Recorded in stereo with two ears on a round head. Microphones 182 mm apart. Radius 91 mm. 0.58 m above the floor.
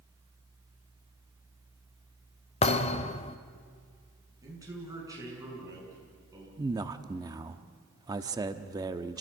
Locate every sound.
2.6 s a thud: 30° left (ahead or behind), 0.9 m
4.4 s a man speaking: 15° right (ahead or behind), 7 m
6.6 s a man speaking: 20° right (ahead or behind), 0.9 m